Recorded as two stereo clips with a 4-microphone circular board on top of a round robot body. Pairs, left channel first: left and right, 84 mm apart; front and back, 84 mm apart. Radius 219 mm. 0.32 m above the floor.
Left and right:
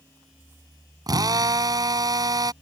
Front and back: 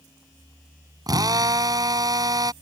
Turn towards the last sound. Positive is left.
turn(degrees=-135)